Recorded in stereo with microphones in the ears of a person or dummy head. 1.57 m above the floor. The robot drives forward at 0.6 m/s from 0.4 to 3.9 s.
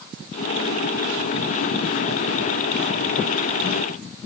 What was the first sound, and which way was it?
Only background noise.